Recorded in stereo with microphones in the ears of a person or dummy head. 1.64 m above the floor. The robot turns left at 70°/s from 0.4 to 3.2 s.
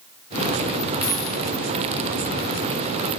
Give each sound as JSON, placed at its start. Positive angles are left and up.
{"t": 1.0, "sound": "a dropped coin", "side_deg": -5, "distance_m": 1.5}